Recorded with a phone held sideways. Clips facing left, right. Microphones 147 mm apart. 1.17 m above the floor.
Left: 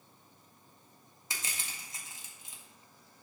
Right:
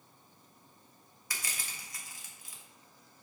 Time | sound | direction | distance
1.3 | crushing | 25° left (ahead or behind) | 1.5 m